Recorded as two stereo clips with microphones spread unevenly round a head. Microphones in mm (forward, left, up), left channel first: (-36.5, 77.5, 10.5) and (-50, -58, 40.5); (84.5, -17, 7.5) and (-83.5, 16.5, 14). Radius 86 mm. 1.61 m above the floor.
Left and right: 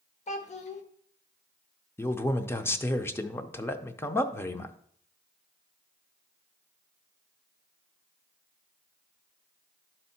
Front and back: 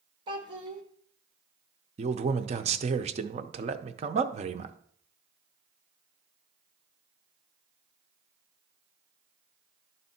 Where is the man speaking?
165° left, 0.6 m.